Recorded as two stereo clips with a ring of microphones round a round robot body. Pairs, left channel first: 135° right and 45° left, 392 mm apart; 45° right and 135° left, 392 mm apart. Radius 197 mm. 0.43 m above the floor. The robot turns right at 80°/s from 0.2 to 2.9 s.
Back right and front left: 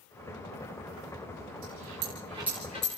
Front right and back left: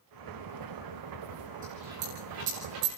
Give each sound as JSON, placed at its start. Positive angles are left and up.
{"t": 1.6, "sound": "a dropped coin", "azimuth_deg": 65, "distance_m": 5.5}